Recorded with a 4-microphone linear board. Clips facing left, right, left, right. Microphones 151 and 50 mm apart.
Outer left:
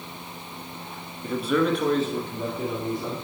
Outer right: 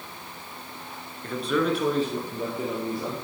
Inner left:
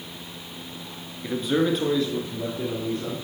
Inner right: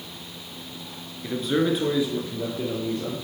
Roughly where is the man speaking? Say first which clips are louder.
Outer left 2 dB, even; centre.